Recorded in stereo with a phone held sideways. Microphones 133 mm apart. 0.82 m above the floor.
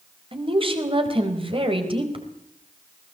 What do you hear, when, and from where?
0.3 s a woman speaking: 40° right (ahead or behind), 4 m